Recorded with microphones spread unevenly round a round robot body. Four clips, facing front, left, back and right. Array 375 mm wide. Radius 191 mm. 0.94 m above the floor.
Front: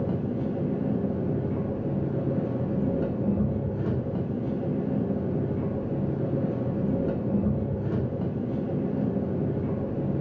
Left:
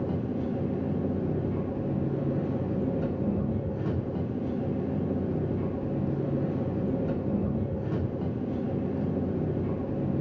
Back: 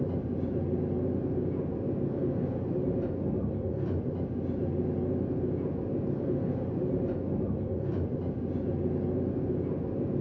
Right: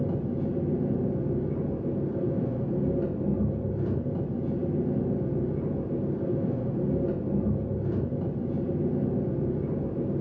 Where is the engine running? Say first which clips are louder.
Right 1 dB, front 3 dB; 5° left, 1.7 m.